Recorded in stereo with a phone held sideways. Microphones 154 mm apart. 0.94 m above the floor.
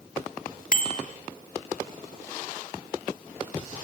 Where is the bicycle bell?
65° left (ahead or behind), 2.5 m.